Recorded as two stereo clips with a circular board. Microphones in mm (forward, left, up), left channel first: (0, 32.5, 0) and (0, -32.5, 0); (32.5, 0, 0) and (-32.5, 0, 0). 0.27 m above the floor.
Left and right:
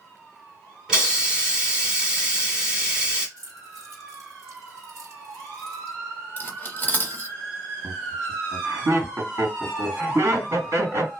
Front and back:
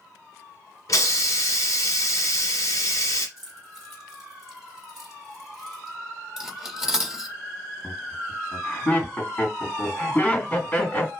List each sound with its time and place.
0.9 s a hiss: 15° right, 1.2 m
3.4 s keys jangling: 95° right, 1.9 m
6.4 s cutlery clinking: 105° left, 0.5 m
7.8 s laughter: 70° right, 2.5 m